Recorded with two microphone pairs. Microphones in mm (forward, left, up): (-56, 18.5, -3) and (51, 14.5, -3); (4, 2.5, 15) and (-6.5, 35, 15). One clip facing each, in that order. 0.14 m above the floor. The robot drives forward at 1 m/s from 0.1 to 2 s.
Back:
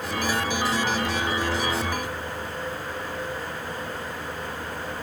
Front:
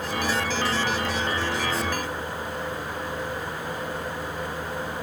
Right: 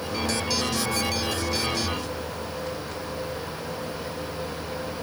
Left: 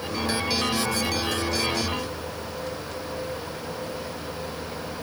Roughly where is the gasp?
No gasp in this recording.